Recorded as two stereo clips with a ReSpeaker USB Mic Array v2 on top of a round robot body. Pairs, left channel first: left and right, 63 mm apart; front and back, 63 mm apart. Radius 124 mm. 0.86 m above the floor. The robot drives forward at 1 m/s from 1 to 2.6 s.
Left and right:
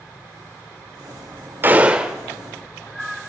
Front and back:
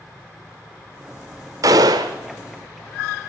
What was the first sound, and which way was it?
A gunshot, 145° right.